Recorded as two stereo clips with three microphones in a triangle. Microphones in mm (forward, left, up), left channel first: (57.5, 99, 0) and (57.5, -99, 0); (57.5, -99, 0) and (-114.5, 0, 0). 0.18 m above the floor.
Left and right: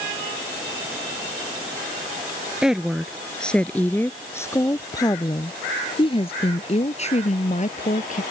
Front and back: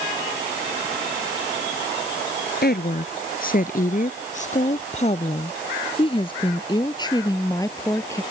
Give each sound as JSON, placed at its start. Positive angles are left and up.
{"t": 2.6, "sound": "a woman speaking", "azimuth_deg": -5}